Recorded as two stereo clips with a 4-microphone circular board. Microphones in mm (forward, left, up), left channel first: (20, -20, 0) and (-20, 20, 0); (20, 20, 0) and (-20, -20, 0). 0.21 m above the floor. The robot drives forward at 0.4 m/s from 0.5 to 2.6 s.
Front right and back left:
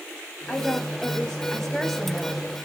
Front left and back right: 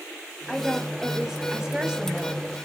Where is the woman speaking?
40° right, 1.5 m; by 2.4 s 140° right, 1.5 m.